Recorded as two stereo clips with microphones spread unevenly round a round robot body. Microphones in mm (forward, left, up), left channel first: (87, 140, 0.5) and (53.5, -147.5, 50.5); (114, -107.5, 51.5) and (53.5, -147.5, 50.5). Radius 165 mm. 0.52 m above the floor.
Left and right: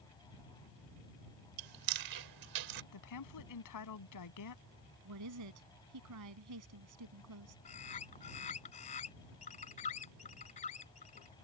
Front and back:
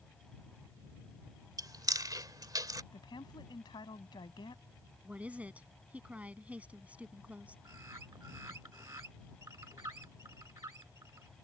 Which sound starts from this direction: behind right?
Chewing, at 1.6 s.